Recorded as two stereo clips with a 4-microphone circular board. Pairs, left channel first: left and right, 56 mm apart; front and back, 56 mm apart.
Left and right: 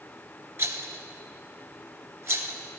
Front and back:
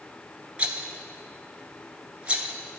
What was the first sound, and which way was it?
A rattle, 115° right.